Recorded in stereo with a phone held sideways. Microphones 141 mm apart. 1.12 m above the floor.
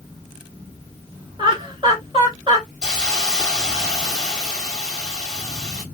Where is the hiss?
5° left (ahead or behind), 2.0 m.